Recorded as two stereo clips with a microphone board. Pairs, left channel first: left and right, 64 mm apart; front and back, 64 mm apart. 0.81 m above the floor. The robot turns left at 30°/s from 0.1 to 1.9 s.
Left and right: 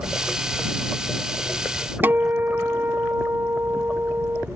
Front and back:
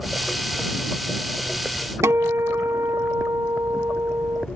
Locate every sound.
2.0 s a guitar: 145° right